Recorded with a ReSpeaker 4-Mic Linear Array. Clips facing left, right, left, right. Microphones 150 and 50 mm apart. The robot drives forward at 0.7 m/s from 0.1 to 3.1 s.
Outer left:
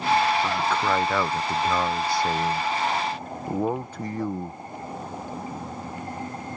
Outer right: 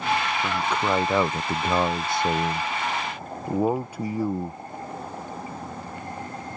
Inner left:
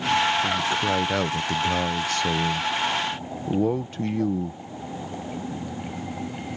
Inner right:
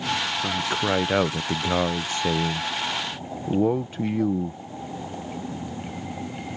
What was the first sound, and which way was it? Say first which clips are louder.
A man speaking: outer left 1 dB, inner left 1 dB; 10° right (ahead or behind).